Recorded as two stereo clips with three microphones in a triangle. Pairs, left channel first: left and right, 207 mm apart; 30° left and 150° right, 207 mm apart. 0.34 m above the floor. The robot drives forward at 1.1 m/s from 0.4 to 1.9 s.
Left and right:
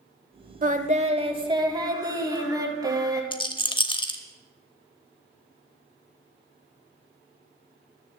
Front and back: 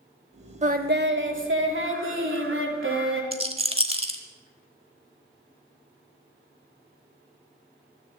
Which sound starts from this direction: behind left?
A rattle, at 3.3 s.